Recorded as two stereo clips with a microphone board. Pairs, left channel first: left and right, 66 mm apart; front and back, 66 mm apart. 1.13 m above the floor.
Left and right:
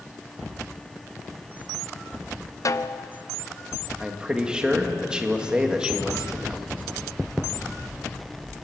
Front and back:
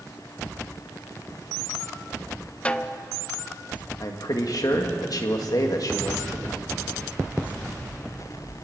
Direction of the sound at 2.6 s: 70° left.